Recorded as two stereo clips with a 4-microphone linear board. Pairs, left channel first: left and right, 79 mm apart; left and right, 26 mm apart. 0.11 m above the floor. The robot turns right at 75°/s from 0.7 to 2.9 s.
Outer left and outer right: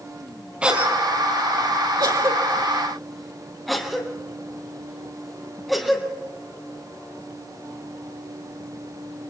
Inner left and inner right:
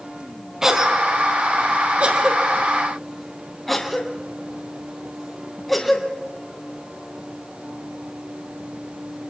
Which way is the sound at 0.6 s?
15° right (ahead or behind).